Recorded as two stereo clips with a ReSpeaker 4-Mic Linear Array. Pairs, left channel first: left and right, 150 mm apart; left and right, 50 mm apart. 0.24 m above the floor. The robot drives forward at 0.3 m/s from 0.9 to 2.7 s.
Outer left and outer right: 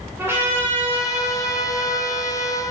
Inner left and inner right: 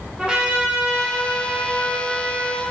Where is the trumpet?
15° right (ahead or behind), 1.1 m; by 2.6 s 10° right (ahead or behind), 1.6 m.